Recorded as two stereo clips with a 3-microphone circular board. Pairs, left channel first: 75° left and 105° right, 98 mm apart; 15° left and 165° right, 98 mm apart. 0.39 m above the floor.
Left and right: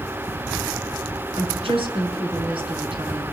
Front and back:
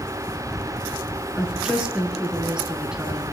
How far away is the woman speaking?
About 5 m.